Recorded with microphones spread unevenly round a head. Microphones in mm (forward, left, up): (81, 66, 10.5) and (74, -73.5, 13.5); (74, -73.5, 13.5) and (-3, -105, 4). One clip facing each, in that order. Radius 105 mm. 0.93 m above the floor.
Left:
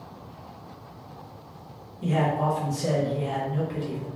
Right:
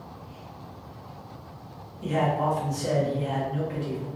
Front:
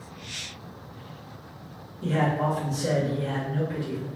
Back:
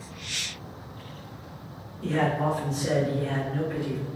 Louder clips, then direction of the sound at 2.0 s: Even, even; 55° left.